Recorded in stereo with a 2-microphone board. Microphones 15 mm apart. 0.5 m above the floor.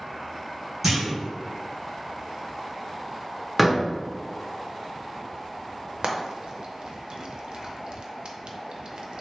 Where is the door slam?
Centre (ahead or behind), 0.6 m.